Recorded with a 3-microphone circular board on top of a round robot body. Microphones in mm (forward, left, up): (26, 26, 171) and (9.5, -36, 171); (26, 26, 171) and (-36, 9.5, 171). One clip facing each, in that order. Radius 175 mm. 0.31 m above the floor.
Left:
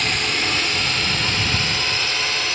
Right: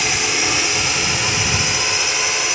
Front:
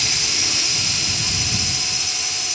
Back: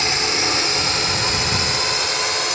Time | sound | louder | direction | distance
0.0 | a drone | right 2 dB, back 6 dB | straight behind | ?